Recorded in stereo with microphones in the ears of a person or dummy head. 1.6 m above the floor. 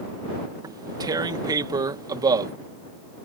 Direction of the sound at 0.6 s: 20° right (ahead or behind).